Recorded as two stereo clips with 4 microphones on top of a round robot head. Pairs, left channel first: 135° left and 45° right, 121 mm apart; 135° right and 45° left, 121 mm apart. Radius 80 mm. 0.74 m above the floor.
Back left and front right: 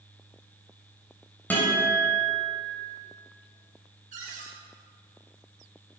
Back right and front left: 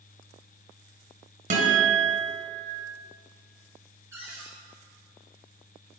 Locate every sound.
1.5 s a guitar: 60° left, 4.5 m
4.1 s a cupboard door: 25° right, 5 m